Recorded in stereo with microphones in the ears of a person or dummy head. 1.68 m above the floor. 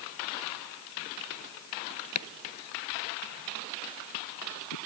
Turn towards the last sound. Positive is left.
turn(degrees=80)